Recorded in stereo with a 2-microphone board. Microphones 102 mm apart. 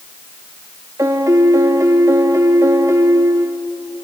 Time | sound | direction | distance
1.0 | a piano | 30° right (ahead or behind) | 1.5 m